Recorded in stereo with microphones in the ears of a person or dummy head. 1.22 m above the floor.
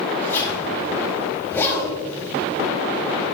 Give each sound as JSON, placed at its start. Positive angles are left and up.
{"t": 0.2, "sound": "a zipper", "side_deg": 15, "distance_m": 4.5}